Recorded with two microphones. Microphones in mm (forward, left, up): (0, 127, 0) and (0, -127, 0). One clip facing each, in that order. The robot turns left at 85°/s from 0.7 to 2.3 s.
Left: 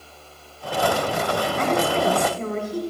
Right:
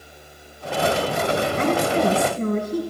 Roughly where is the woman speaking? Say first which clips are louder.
Right 1 dB; ahead right.